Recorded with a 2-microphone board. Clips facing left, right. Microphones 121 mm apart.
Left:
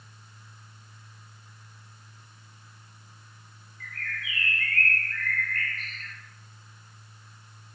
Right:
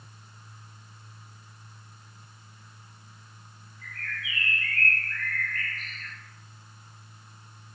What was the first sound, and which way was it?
A bird, 50° left (ahead or behind).